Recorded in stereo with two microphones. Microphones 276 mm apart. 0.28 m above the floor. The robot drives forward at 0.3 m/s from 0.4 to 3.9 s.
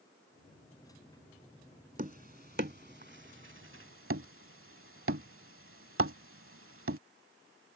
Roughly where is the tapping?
Right.